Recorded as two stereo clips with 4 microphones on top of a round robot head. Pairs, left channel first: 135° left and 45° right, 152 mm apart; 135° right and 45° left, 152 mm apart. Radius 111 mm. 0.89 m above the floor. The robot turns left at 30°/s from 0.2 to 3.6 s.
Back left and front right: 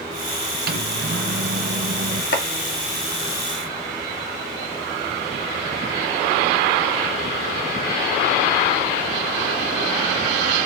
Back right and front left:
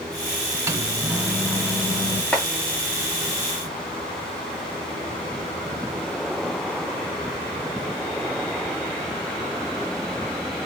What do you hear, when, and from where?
0.7 s a microwave: 25° right, 0.6 m; by 2.2 s 70° right, 0.6 m
2.3 s chopping: 145° left, 0.6 m